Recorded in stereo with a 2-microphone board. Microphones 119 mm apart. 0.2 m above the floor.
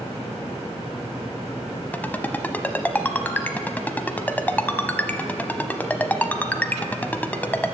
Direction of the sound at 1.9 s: 15° left (ahead or behind).